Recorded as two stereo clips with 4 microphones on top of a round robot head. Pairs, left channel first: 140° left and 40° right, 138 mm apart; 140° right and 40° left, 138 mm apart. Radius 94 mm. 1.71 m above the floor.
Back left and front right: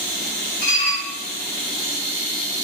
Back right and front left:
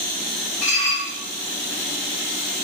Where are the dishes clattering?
125° left, 1.4 m.